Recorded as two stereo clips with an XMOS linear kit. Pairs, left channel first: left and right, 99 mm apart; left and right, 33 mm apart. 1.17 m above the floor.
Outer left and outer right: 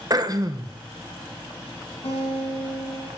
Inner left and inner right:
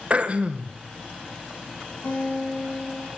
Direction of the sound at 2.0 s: 80° left.